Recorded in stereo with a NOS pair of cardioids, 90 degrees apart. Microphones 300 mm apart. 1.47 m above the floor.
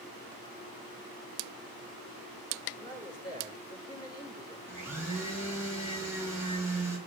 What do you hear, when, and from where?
2.8 s a man speaking: 15° left, 6 m
4.7 s a blender: 10° right, 6 m